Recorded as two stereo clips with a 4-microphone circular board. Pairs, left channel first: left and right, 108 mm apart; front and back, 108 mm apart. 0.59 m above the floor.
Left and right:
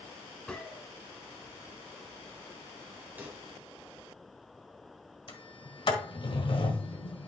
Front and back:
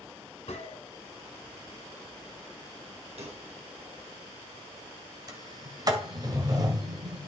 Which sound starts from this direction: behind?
A pop, at 3.2 s.